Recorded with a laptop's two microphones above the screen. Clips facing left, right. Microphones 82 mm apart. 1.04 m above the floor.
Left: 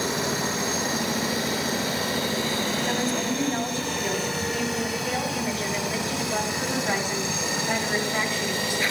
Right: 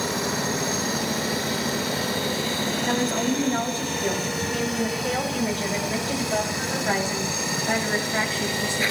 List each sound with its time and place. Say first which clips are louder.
2.9 s a woman speaking: right 2 dB; 50° right (ahead or behind), 6.5 m; by 8.8 s 25° right (ahead or behind), 9 m